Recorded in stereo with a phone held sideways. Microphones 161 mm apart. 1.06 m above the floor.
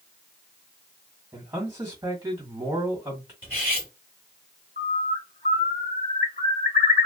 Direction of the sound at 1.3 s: 15° right (ahead or behind).